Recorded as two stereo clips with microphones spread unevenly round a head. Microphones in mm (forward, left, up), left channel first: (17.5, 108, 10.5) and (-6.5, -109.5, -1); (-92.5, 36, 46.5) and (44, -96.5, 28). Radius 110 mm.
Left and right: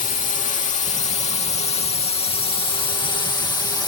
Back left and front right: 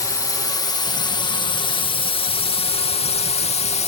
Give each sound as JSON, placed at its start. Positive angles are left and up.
{"t": 0.0, "sound": "a drone", "azimuth_deg": 70}